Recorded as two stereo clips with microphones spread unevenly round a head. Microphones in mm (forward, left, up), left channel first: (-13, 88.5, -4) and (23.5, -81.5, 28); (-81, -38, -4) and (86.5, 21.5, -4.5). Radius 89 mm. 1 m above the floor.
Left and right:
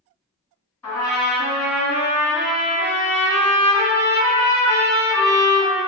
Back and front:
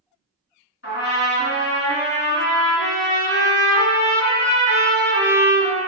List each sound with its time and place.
0.8 s a trumpet: 175° right, 1.5 m